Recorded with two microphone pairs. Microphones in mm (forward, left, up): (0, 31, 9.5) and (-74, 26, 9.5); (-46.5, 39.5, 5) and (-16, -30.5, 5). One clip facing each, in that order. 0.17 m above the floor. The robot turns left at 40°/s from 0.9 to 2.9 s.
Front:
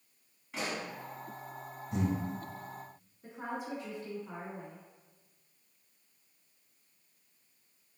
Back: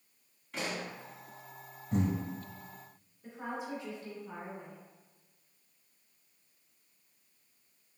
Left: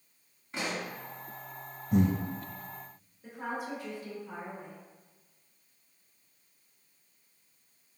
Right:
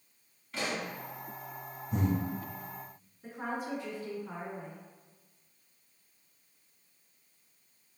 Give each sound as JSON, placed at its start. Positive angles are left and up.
{"t": 0.5, "sound": "a pop", "azimuth_deg": 75, "distance_m": 1.3}
{"t": 1.9, "sound": "breathing", "azimuth_deg": 135, "distance_m": 0.7}
{"t": 3.2, "sound": "a woman speaking", "azimuth_deg": -40, "distance_m": 1.9}